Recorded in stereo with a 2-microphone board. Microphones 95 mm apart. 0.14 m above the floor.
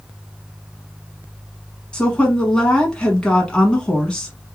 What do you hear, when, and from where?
1.9 s a woman speaking: 10° left (ahead or behind), 1.0 m